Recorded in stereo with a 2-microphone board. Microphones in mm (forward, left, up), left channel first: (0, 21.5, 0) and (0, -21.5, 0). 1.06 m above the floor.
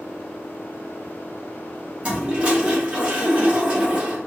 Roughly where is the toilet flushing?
Right.